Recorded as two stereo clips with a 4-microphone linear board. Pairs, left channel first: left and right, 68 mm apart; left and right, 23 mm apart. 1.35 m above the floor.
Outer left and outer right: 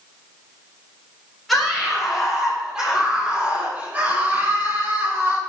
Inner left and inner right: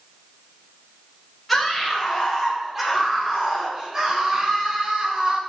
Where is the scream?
Centre (ahead or behind), 5.5 m; by 5.4 s 45° right (ahead or behind), 5 m.